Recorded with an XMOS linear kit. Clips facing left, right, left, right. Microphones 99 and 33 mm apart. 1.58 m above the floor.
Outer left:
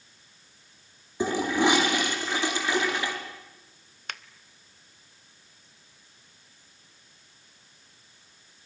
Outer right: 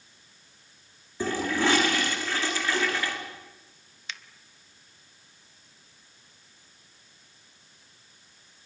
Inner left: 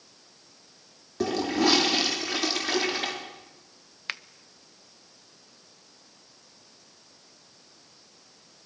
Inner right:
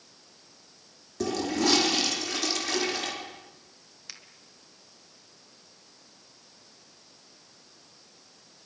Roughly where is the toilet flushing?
Centre.